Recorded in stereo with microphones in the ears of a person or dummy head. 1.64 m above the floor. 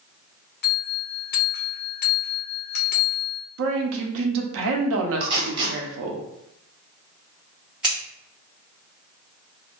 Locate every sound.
0.6 s a bell: 45° left (ahead or behind), 0.6 m
3.6 s a woman speaking: 75° right (ahead or behind), 0.8 m
5.2 s tape being pulled: 25° right (ahead or behind), 0.9 m
7.8 s scissors: centre (ahead or behind), 1.3 m